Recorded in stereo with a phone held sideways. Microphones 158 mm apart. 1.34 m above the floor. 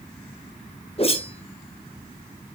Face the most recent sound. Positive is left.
turn(degrees=40)  # may be behind; listen again after turning